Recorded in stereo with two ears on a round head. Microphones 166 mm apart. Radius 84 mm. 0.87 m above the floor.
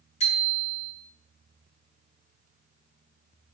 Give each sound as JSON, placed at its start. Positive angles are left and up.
{"t": 0.2, "sound": "a bicycle bell", "side_deg": 35, "distance_m": 9.0}